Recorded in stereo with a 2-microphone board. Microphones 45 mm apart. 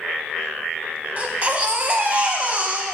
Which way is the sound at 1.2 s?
30° right (ahead or behind).